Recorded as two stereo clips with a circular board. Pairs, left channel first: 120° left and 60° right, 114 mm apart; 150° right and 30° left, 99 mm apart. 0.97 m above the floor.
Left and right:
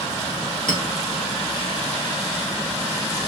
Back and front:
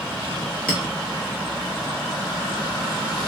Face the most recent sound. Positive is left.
turn(degrees=-75)